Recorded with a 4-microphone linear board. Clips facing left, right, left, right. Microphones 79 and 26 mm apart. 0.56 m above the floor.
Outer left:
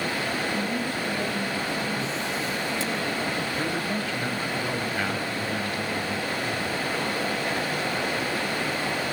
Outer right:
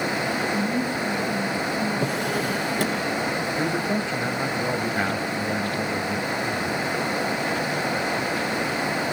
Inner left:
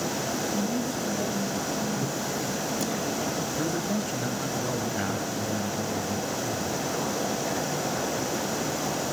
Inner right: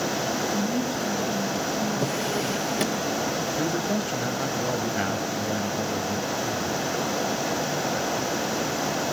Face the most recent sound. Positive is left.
turn(degrees=-20)  # may be behind; listen again after turning